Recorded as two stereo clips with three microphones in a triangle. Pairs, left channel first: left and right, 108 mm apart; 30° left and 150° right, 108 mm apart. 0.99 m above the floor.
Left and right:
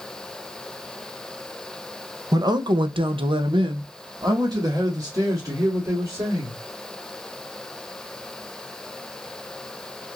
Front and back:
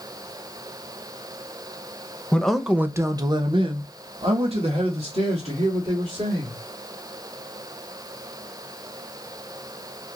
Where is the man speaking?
45° right, 0.6 m; by 6.6 s 155° right, 2.5 m.